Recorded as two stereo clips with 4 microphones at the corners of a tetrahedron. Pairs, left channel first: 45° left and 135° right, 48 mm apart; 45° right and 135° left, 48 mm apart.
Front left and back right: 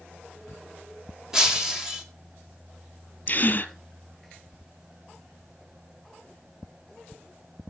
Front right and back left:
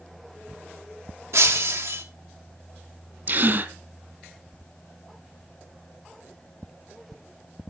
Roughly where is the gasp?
Left.